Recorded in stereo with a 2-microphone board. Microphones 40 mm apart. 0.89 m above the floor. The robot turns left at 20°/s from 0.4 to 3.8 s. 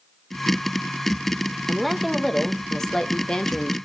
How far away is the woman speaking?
About 0.7 m.